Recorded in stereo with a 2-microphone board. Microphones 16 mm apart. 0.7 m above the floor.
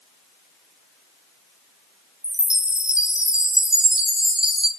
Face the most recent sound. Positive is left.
turn(degrees=-75)  # may be behind; listen again after turning